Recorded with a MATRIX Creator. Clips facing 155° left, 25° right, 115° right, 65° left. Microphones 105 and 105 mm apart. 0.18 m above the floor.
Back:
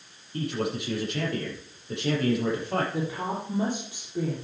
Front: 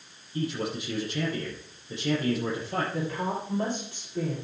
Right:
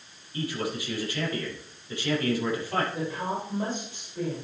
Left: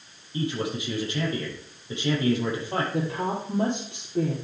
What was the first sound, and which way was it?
A man speaking, 135° left.